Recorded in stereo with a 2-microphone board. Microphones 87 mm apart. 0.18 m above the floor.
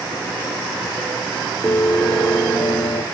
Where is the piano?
30° left (ahead or behind), 1.3 m.